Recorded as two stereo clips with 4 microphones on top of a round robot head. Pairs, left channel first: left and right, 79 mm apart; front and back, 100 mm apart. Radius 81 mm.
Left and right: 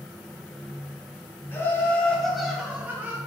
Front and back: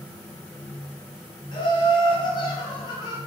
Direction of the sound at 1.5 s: 30° left.